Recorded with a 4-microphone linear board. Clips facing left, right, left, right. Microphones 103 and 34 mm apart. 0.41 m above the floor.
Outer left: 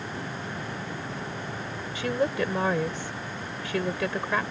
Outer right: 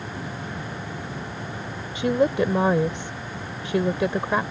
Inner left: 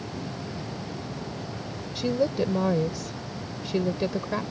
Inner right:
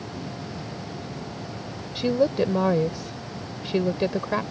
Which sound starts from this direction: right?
A woman speaking, at 1.9 s.